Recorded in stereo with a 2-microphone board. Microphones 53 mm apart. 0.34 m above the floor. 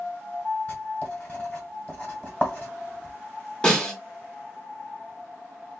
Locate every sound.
0.7 s writing: 25° left (ahead or behind), 1.4 m
3.6 s a snare drum: 15° left (ahead or behind), 1.3 m